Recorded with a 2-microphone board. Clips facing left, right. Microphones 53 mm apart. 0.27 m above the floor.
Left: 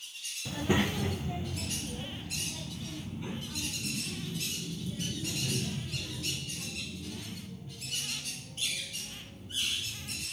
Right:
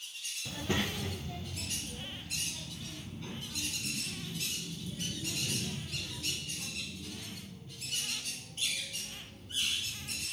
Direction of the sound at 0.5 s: 15° left (ahead or behind).